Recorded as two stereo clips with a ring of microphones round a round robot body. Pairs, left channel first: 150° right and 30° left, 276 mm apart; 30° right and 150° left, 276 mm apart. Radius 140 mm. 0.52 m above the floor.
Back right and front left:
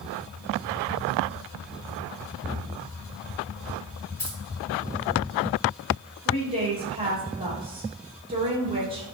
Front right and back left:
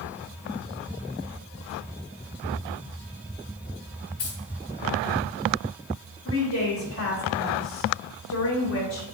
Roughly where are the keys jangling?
Right.